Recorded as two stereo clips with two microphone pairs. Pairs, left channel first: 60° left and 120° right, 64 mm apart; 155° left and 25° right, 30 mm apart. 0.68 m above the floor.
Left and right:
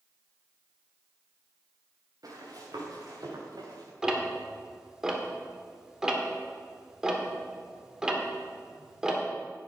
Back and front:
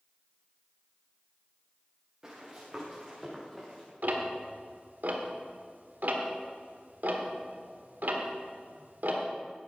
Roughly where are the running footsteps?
Right.